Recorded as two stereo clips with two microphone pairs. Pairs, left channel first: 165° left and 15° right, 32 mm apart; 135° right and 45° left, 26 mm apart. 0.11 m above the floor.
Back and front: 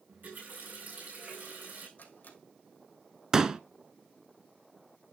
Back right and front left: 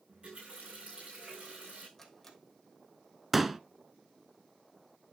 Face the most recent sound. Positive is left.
turn(degrees=-25)